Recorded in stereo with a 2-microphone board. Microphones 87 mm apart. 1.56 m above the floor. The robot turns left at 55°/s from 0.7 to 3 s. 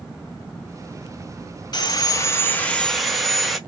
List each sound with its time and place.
1.7 s sawing: 70° left, 0.7 m; by 3.6 s straight ahead, 0.7 m